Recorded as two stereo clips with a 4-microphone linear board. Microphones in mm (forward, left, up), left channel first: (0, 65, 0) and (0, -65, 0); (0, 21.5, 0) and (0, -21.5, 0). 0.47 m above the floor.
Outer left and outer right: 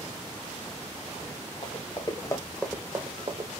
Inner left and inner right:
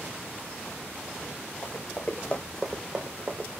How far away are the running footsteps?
About 1.9 m.